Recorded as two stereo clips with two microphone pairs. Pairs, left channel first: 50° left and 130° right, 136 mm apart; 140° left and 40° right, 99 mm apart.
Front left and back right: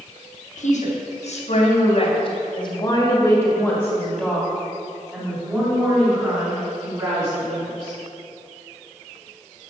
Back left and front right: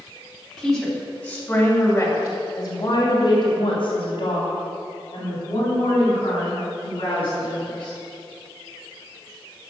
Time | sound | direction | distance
0.6 | a woman speaking | 50° left | 3.5 m